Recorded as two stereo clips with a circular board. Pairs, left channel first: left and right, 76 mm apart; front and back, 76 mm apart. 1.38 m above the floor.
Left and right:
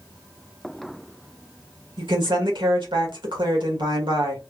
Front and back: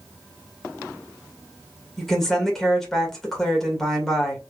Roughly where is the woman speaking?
Right.